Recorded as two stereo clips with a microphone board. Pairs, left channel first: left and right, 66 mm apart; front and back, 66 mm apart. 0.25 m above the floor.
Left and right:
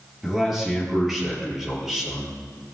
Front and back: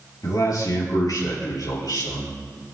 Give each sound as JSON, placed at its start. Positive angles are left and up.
{"t": 0.2, "sound": "a man speaking", "azimuth_deg": -5, "distance_m": 4.5}